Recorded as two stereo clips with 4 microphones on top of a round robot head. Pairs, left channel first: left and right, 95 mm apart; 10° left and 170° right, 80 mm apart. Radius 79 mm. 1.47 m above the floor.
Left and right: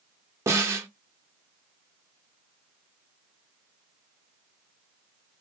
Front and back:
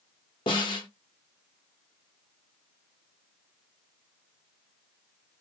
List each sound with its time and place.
0.5 s a snare drum: 30° right, 0.7 m